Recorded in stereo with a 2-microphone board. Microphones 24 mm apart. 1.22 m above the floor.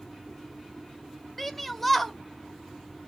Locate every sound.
1.4 s a shout: 5° left (ahead or behind), 0.6 m